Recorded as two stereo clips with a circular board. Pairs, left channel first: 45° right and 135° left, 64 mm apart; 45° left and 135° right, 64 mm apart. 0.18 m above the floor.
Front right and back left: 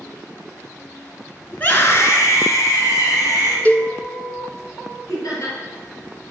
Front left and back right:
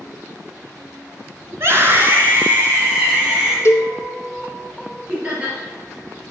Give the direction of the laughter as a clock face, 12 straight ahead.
2 o'clock.